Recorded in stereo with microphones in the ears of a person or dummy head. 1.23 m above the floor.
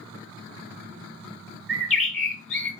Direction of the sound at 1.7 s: Centre (ahead or behind).